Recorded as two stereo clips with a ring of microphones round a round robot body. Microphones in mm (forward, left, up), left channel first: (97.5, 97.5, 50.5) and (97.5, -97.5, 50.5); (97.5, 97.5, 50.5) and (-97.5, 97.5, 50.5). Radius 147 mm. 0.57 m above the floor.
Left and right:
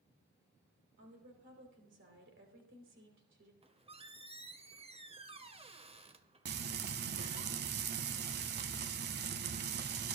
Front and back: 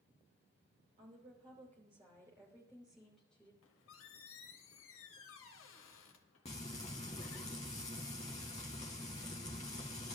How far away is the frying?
About 0.7 m.